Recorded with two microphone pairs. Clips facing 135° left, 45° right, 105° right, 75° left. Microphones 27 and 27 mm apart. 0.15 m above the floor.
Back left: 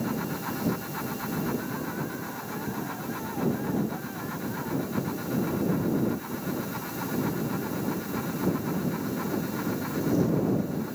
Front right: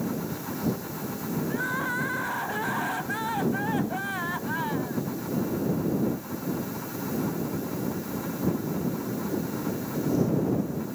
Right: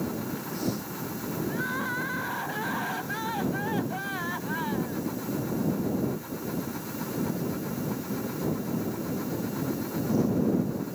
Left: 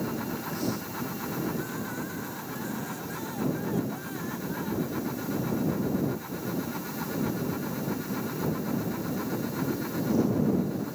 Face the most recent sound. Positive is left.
turn(degrees=-55)